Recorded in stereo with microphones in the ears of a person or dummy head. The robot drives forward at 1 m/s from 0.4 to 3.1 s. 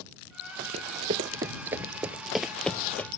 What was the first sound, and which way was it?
Running footsteps, 30° right (ahead or behind).